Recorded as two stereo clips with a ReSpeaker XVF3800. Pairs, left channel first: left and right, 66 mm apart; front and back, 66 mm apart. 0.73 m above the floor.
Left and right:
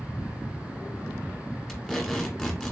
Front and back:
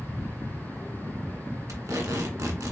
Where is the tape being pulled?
175° left, 1.2 m.